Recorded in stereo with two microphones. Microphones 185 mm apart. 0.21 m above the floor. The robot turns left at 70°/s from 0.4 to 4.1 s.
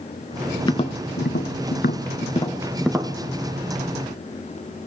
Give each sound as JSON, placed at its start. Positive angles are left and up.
{"t": 0.7, "sound": "tapping", "side_deg": 20, "distance_m": 0.9}